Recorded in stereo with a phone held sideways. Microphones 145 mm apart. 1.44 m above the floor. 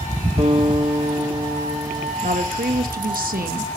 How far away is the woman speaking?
About 2 m.